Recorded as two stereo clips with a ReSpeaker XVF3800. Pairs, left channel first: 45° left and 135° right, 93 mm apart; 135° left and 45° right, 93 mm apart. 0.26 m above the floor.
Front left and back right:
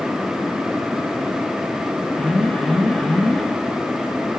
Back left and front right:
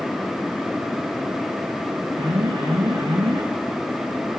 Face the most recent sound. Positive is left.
turn(degrees=-35)